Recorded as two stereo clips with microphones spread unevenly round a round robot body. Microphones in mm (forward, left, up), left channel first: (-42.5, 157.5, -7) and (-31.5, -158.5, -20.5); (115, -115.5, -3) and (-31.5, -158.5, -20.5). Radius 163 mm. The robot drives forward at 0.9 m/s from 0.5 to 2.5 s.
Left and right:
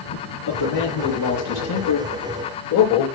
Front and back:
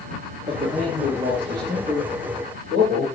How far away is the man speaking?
About 8 m.